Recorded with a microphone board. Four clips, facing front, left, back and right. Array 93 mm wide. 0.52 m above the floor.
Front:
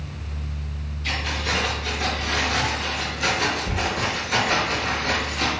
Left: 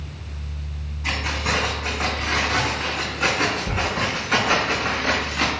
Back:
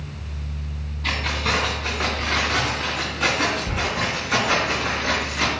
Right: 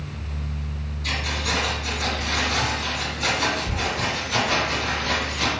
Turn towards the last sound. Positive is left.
turn(degrees=110)